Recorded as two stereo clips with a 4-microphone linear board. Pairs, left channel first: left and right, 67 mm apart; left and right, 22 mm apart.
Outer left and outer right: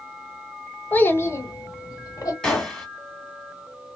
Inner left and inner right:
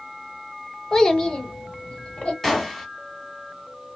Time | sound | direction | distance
0.9 | a child speaking | 25° left (ahead or behind) | 0.7 m
2.4 | a gunshot | 10° left (ahead or behind) | 1.5 m